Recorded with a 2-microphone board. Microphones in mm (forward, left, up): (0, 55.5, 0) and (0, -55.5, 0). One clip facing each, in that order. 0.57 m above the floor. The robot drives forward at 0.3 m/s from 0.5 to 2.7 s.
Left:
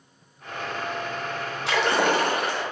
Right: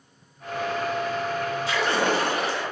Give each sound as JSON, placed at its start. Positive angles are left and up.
{"t": 1.7, "sound": "a splash", "side_deg": 75, "distance_m": 0.6}